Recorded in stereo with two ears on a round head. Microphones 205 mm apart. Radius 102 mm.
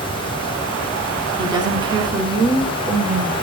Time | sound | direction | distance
1.4 | a woman speaking | 20° right (ahead or behind) | 4.5 m